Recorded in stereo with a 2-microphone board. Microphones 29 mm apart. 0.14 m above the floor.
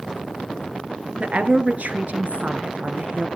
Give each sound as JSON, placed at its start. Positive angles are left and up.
{"t": 1.2, "sound": "a woman speaking", "side_deg": -55, "distance_m": 1.8}